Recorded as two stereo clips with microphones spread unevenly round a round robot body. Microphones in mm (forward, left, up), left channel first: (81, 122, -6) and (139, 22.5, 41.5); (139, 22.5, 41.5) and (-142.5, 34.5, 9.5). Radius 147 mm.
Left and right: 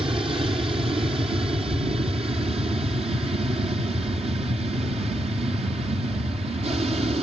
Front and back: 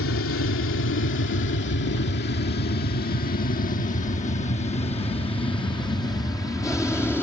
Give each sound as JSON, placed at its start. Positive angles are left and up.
{"t": 0.0, "sound": "an aircraft", "azimuth_deg": -15}